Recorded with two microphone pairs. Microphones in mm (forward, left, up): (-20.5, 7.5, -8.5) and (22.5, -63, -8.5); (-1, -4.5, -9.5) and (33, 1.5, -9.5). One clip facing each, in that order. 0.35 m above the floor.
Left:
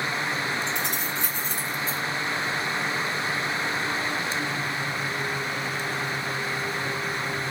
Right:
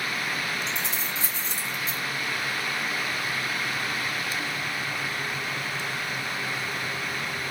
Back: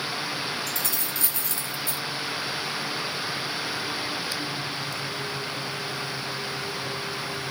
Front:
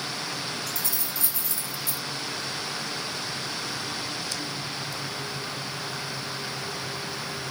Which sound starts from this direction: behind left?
Keys jangling, at 0.7 s.